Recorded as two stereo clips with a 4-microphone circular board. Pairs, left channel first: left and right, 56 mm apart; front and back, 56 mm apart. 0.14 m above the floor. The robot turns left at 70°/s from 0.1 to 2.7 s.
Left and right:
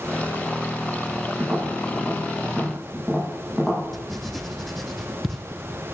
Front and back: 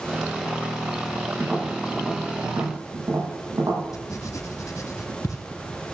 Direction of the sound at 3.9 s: 5° left.